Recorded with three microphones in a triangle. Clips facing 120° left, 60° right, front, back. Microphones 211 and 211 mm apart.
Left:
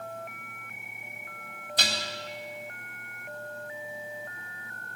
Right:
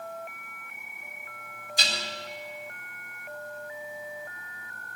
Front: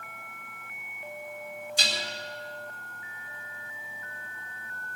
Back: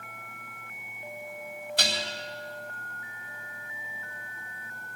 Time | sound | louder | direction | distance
1.8 | dishes clattering | left 1 dB, back 4 dB | 150° left | 3.5 m